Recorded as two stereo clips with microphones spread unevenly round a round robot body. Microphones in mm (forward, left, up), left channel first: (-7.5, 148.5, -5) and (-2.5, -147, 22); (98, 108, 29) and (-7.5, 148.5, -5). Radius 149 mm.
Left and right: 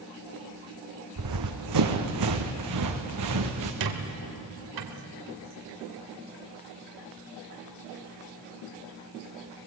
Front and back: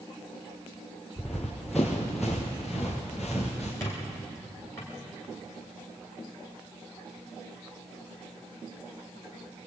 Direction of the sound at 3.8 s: 100° right.